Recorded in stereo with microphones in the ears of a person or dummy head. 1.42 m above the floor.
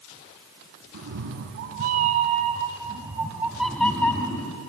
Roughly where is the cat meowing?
Right.